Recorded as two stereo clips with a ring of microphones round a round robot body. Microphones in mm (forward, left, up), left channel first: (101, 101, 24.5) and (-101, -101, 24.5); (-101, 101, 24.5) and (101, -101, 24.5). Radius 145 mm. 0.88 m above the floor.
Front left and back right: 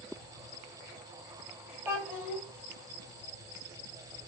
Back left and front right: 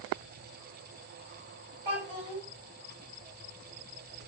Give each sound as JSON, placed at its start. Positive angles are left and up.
{"t": 1.9, "sound": "a child speaking", "azimuth_deg": -55, "distance_m": 1.4}